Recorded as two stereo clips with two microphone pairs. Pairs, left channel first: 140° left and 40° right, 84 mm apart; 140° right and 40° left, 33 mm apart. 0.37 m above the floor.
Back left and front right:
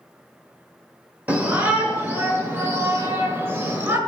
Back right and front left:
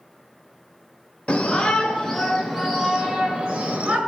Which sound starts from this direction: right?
A shout, at 1.3 s.